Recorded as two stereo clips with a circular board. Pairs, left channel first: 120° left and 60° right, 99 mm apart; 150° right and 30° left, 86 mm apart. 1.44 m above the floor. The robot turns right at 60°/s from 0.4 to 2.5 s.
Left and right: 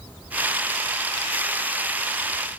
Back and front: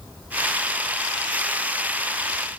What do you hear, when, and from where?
Only background noise.